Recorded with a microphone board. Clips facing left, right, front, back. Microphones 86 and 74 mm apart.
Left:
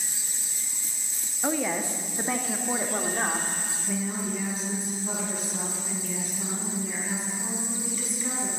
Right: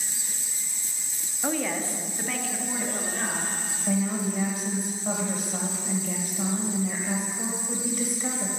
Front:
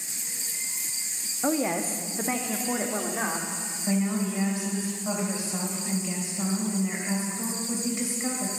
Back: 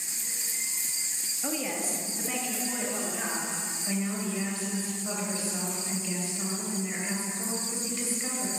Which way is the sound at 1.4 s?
5° left.